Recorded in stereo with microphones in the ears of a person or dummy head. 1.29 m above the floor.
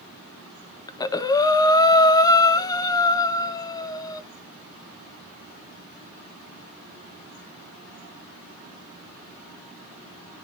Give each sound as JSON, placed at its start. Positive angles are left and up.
{"t": 0.9, "sound": "breathing", "side_deg": 25, "distance_m": 0.8}